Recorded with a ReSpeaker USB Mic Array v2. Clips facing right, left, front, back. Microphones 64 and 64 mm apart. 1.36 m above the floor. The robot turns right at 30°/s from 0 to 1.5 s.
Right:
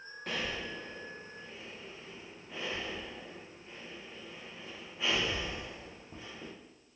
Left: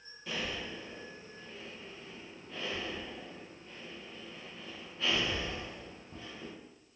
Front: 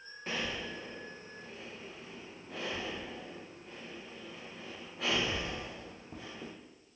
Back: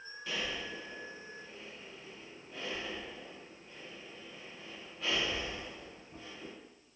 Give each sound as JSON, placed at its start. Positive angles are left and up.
{"t": 0.3, "sound": "breathing", "azimuth_deg": -55, "distance_m": 0.5}